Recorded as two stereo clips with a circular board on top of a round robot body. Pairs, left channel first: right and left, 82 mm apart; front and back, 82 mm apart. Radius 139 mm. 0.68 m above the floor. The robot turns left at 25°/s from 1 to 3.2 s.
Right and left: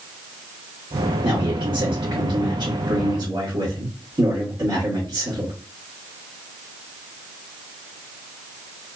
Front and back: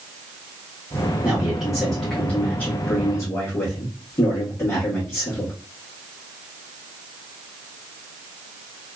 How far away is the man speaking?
About 1.4 m.